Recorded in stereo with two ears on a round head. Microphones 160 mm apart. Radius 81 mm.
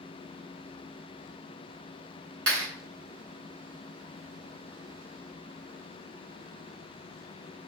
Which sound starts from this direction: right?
A clap, at 2.5 s.